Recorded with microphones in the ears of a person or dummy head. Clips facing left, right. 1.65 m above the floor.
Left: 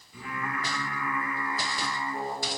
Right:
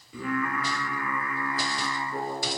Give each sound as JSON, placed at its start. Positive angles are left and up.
{"t": 0.1, "sound": "singing", "side_deg": -60, "distance_m": 2.0}